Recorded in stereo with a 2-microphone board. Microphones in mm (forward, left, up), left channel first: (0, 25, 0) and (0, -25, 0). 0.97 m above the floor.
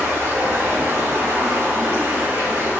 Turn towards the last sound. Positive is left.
turn(degrees=-60)  # may be behind; listen again after turning